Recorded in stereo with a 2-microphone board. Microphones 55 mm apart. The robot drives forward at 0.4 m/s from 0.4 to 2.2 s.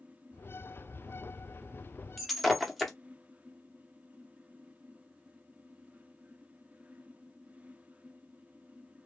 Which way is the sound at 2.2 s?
Centre (ahead or behind).